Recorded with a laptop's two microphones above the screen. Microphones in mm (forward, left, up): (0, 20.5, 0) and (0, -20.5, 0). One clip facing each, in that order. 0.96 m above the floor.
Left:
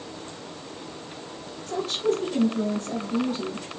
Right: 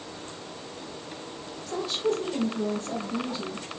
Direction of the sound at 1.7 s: 45° left (ahead or behind).